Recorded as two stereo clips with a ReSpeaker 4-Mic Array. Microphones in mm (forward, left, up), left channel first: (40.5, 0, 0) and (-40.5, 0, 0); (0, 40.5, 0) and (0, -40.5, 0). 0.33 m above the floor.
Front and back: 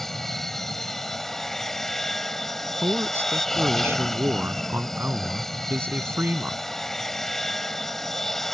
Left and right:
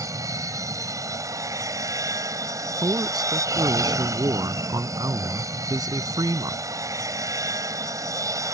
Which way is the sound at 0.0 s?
85° right.